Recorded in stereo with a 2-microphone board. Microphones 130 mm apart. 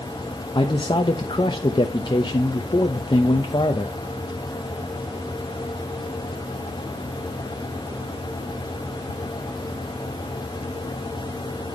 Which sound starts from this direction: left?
A man speaking, at 0.6 s.